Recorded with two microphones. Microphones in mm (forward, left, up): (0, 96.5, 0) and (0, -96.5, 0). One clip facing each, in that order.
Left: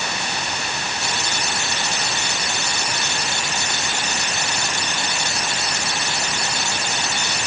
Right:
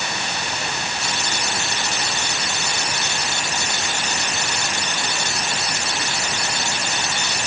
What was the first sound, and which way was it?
Only background noise.